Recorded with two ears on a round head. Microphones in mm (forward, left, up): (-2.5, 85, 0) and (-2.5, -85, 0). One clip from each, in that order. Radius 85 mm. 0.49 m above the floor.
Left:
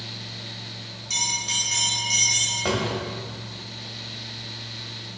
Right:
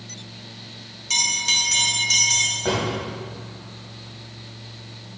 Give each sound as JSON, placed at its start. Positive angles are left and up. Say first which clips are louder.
{"t": 1.1, "sound": "a bell", "louder": "right 5 dB", "side_deg": -25, "distance_m": 1.5}
{"t": 2.6, "sound": "a drawer", "louder": "right 1 dB", "side_deg": 65, "distance_m": 1.5}